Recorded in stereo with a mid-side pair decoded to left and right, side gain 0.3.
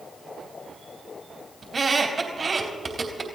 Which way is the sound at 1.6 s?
50° right.